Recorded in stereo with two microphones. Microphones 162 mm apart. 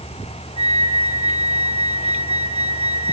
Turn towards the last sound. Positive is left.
turn(degrees=-40)  # may be behind; listen again after turning